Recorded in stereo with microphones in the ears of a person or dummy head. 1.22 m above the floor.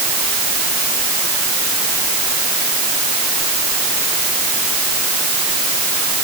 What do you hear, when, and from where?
Only background noise.